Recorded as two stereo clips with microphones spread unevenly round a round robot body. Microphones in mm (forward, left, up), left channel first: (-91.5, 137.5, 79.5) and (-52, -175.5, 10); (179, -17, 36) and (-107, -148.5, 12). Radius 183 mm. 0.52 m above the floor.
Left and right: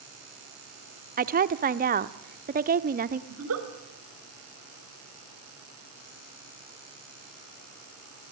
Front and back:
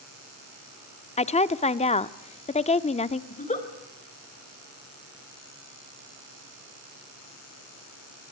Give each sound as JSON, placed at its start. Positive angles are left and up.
{"t": 1.2, "sound": "a woman speaking", "azimuth_deg": -45, "distance_m": 0.9}
{"t": 3.3, "sound": "a giggle", "azimuth_deg": -45, "distance_m": 3.5}